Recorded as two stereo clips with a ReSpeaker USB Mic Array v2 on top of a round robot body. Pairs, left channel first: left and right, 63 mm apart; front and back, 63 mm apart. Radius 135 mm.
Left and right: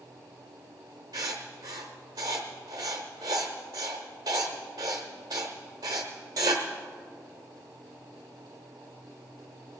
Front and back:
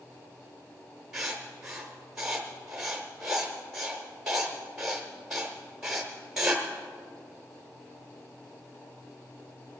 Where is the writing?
100° right, 0.6 m.